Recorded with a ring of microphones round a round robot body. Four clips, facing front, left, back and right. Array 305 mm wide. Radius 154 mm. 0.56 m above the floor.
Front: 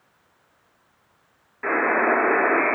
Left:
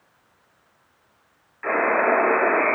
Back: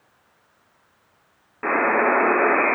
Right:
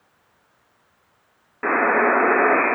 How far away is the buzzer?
About 8 m.